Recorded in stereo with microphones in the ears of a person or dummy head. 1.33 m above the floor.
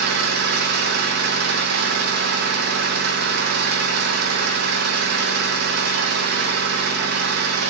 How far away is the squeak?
I don't hear a squeak.